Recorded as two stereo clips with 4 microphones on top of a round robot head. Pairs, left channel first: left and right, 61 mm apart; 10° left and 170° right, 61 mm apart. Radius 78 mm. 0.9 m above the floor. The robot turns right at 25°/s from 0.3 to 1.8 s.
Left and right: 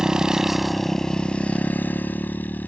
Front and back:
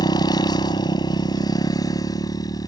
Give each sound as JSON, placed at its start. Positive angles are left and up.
{"t": 0.0, "sound": "a motorcycle", "azimuth_deg": -10}